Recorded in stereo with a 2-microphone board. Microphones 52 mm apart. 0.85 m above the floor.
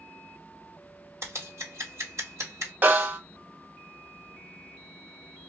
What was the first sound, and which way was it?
Scissors, 70° right (ahead or behind).